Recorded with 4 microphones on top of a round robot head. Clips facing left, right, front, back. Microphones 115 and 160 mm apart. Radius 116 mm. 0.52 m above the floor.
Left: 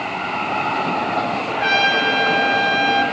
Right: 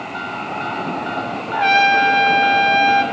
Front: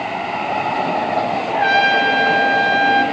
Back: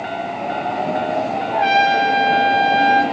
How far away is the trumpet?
About 1.1 m.